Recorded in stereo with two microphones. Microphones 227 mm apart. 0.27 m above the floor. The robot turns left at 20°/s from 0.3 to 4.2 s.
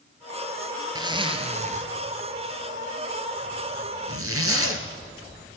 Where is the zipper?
15° right (ahead or behind), 2.5 m; by 4.8 s 75° right (ahead or behind), 2.5 m.